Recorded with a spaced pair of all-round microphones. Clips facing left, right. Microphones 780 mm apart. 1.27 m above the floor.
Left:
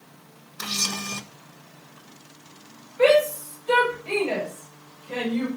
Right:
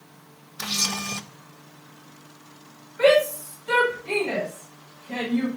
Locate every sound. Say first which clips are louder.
0.6 s a camera shutter: right 1 dB; 25° right (ahead or behind), 0.7 m
3.0 s a shout: even; 45° right (ahead or behind), 5.5 m